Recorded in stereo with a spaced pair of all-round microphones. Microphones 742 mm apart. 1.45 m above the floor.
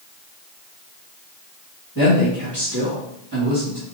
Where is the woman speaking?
25° left (ahead or behind), 2.5 m.